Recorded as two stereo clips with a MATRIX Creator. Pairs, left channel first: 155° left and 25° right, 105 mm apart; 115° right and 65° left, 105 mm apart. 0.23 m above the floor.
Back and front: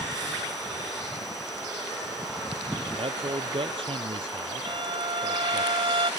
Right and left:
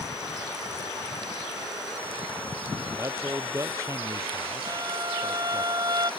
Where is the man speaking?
10° left.